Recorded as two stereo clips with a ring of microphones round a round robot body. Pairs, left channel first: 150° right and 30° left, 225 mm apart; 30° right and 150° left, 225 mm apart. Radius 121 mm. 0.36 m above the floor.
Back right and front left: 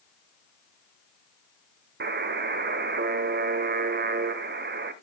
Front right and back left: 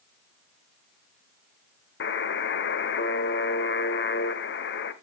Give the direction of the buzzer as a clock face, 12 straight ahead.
12 o'clock.